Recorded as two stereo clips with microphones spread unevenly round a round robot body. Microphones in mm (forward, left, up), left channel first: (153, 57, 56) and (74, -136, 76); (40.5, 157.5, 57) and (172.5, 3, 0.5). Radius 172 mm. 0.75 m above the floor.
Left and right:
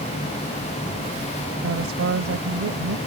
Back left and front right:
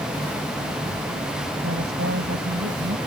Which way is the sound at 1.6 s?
105° right.